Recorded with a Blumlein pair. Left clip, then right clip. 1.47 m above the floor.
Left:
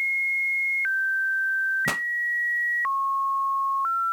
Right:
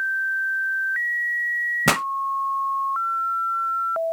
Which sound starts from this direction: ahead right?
A pop, at 1.9 s.